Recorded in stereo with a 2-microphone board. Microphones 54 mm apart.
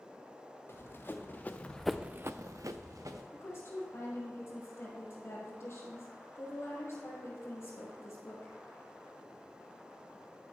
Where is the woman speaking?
50° left (ahead or behind), 3.5 m.